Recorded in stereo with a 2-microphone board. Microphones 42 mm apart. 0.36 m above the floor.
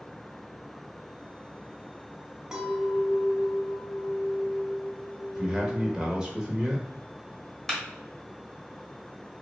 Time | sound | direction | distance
2.5 | a clink | 10° right (ahead or behind) | 1.6 m
5.3 | a man speaking | 15° right (ahead or behind) | 0.8 m
7.7 | a clap | 10° left (ahead or behind) | 1.3 m